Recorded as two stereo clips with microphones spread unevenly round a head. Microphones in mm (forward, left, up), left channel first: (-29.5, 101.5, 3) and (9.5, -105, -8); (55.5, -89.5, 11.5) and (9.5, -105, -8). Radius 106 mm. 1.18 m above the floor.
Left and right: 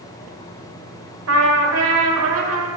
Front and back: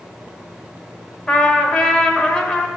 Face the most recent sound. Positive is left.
turn(degrees=-65)